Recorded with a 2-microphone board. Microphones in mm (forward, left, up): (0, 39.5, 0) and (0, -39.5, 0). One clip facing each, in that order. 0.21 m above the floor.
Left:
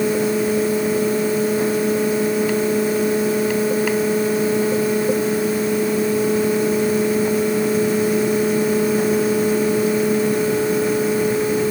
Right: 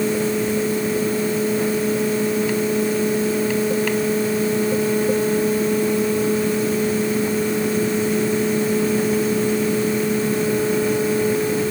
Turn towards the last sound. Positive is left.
No sound to turn to.